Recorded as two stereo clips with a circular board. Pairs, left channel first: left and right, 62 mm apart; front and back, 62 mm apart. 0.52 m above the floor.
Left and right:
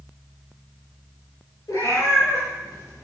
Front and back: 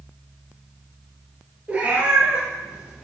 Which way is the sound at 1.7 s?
115° left.